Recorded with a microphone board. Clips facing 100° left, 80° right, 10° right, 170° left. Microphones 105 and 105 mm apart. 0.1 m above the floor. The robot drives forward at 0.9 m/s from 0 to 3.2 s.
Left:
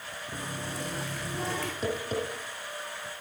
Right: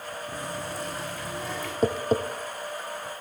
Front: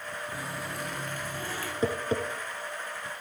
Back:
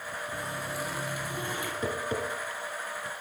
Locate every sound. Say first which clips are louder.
0.3 s a running tap: right 1 dB, back 3 dB; 75° left, 3 m; by 1.7 s 100° left, 3 m
1.8 s tapping: right 9 dB, front 4 dB; 60° right, 1.6 m; by 2.2 s 75° right, 1.5 m